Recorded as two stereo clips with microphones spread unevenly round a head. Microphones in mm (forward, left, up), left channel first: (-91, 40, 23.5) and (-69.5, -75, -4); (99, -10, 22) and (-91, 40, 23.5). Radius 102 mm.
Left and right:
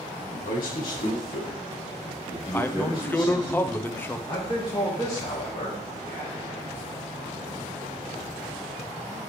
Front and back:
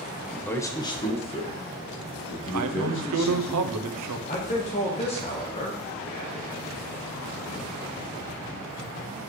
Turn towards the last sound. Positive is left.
turn(degrees=45)